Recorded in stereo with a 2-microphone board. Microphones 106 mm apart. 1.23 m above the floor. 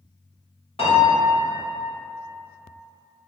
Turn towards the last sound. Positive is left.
turn(degrees=55)  # may be behind; listen again after turning